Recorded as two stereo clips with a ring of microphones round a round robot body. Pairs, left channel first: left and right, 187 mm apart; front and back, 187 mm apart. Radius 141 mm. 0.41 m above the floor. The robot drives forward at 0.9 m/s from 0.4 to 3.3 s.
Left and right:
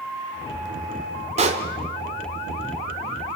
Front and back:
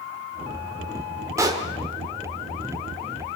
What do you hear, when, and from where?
1.4 s a pop: 115° right, 1.4 m; by 1.7 s 130° right, 1.5 m